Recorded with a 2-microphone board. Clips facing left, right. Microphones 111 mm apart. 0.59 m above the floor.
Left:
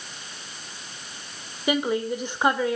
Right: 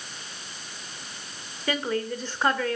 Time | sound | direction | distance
1.7 | a woman speaking | 15° left (ahead or behind) | 2.5 m